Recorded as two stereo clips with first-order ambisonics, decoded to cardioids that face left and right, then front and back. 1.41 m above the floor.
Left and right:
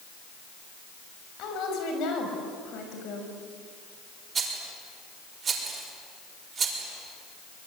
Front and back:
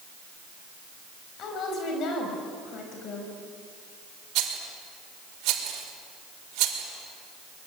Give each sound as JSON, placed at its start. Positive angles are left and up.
{"t": 1.4, "sound": "a woman speaking", "azimuth_deg": 50, "distance_m": 6.5}
{"t": 4.3, "sound": "a rattle", "azimuth_deg": -155, "distance_m": 4.5}